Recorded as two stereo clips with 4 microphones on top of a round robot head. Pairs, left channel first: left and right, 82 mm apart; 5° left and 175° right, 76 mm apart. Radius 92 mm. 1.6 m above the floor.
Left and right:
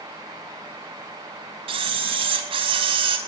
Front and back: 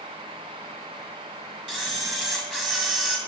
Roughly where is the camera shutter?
Right.